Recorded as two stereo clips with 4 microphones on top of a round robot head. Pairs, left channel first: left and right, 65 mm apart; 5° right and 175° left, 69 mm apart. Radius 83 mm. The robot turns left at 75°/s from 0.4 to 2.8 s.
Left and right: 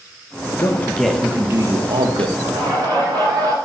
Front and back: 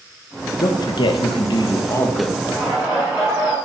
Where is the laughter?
75° right, 5.5 m; by 3.5 s 105° right, 5.5 m.